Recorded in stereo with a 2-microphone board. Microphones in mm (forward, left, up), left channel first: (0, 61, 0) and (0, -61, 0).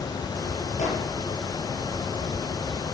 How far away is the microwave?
About 6 m.